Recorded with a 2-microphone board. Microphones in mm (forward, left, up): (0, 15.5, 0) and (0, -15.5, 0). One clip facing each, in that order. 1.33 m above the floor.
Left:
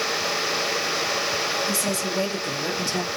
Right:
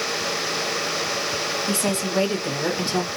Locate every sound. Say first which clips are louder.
1.7 s a woman speaking: right 2 dB; 45° right (ahead or behind), 2.5 m; by 3.1 s 35° right (ahead or behind), 1.7 m